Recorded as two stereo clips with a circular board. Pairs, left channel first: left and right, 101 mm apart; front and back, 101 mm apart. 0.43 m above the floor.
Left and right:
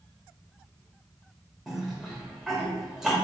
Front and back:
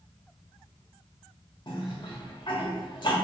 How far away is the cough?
About 1.3 m.